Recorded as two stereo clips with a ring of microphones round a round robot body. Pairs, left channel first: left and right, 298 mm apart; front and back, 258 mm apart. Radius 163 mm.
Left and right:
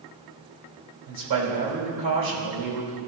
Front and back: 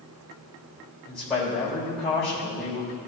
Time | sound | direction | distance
1.1 | a man speaking | 90° right | 3 m